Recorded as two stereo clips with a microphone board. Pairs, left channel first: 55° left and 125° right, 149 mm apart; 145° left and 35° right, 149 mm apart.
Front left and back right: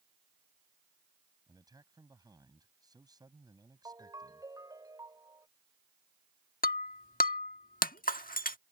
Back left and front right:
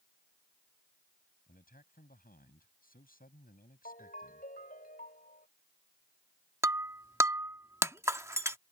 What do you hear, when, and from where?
1.5 s a man speaking: 170° left
3.9 s a ringtone: 170° left
6.6 s breaking glass: 35° left